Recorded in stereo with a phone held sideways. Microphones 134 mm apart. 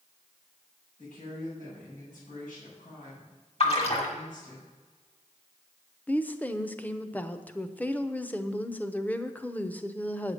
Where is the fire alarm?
I don't hear a fire alarm.